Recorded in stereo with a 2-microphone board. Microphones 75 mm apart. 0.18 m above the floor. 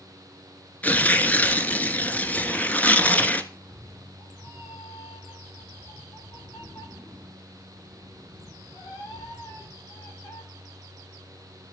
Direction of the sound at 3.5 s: 85° left.